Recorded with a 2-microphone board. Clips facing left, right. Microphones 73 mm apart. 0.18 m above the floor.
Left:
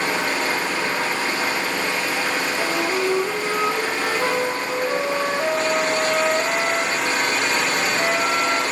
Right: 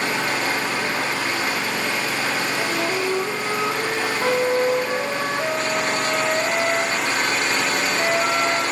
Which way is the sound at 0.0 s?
35° left (ahead or behind).